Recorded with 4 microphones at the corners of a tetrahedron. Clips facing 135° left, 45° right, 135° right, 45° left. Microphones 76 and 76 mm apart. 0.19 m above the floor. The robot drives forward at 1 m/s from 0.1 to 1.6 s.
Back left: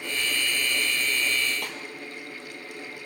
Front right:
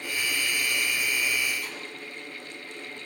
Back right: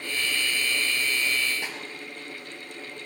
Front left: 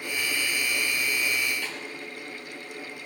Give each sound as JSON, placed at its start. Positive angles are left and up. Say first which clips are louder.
{"t": 1.6, "sound": "a snare drum", "louder": "back left 2 dB, even", "azimuth_deg": 155, "distance_m": 2.0}